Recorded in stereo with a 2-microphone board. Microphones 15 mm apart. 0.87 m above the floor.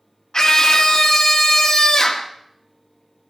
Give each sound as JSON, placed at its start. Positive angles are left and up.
{"t": 0.3, "sound": "a scream", "side_deg": 45, "distance_m": 1.5}